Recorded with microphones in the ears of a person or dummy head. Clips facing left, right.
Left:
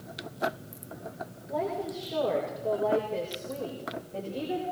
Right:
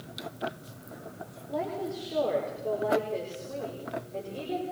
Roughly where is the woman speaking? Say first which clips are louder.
Left 1 dB; centre.